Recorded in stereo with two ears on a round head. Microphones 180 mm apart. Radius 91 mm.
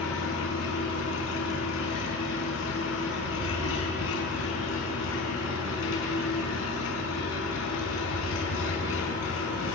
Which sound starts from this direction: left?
An engine running, at 0.0 s.